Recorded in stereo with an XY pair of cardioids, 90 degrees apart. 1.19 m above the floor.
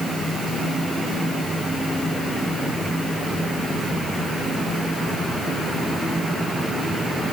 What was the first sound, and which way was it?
Only background noise.